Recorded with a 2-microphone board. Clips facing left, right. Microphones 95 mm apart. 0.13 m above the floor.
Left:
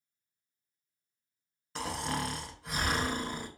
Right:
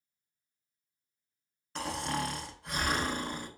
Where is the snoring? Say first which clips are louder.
Right 1 dB; centre (ahead or behind), 0.5 m.